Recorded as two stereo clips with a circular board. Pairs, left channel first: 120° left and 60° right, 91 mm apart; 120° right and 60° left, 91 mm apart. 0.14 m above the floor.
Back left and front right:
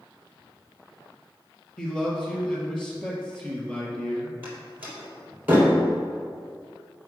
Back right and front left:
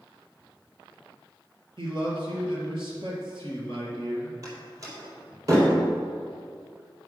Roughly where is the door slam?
Ahead.